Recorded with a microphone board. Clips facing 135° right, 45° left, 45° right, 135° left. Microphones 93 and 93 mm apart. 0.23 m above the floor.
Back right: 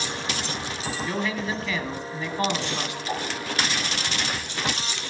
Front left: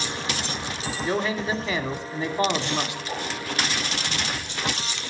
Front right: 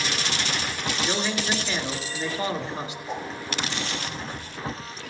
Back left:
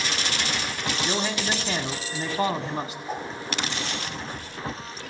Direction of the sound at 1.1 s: 105° left.